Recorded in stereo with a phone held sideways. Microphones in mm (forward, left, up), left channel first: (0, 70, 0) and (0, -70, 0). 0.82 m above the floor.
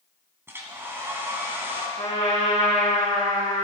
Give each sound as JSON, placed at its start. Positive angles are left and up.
{"t": 0.5, "sound": "a hair dryer", "side_deg": -15, "distance_m": 3.0}
{"t": 2.0, "sound": "a trumpet", "side_deg": 55, "distance_m": 7.5}